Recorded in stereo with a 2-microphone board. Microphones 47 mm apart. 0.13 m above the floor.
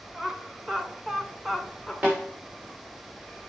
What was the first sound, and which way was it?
Laughter, 15° right (ahead or behind).